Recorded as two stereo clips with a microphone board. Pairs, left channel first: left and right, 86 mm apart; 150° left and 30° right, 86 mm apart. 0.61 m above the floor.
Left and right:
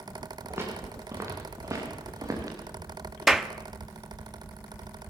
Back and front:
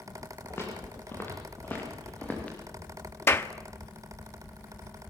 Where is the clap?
170° right, 0.8 m.